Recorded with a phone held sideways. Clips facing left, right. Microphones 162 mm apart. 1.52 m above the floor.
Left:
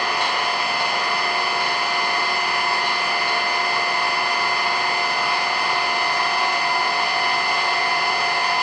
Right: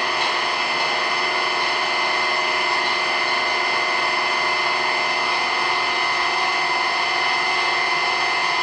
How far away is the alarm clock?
I don't hear an alarm clock.